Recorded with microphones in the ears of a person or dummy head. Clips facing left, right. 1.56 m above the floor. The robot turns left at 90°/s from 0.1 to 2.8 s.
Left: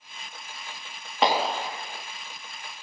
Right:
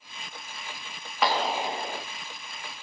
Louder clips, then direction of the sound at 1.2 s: Left 2 dB; 20° left.